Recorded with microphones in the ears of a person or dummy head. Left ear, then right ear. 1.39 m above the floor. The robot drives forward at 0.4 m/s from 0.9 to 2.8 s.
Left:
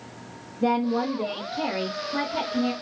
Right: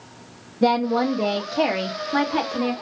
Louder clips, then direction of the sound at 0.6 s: Right 4 dB; 75° right (ahead or behind).